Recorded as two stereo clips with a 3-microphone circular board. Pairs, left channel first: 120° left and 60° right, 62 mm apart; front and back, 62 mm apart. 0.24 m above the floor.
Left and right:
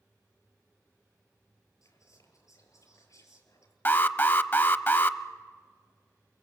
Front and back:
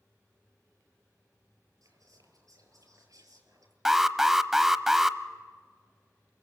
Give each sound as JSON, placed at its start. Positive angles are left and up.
{"t": 1.8, "sound": "whispering", "azimuth_deg": 155, "distance_m": 6.0}
{"t": 3.9, "sound": "an alarm", "azimuth_deg": 100, "distance_m": 0.7}